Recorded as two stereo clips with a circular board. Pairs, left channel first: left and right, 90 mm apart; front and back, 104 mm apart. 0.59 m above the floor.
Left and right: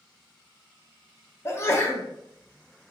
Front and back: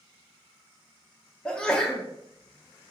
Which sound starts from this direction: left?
A sneeze, at 1.4 s.